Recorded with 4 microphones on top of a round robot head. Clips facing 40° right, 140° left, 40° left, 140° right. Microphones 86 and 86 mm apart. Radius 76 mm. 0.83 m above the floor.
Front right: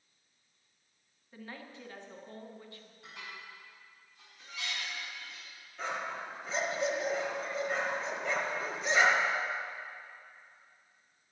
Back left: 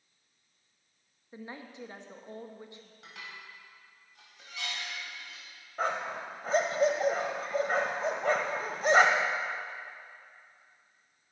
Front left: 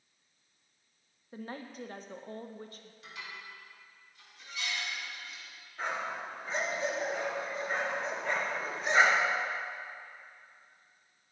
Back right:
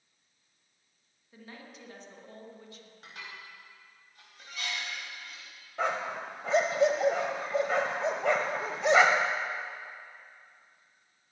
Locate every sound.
1.3 s a woman speaking: 75° left, 1.2 m
3.0 s dishes clattering: 165° left, 4 m
5.8 s a dog barking: 170° right, 1.0 m